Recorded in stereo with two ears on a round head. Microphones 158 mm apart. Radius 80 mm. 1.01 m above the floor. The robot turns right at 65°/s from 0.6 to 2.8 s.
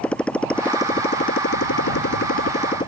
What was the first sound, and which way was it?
A motorcycle, 5° left.